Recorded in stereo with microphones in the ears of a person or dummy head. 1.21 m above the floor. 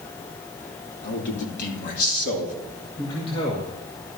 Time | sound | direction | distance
1.0 | a man speaking | 55° left (ahead or behind) | 2.5 m
3.0 | a man speaking | 30° left (ahead or behind) | 2 m